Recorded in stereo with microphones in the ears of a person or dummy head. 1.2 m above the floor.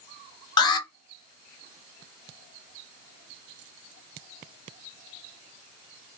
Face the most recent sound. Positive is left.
turn(degrees=20)  # may be behind; listen again after turning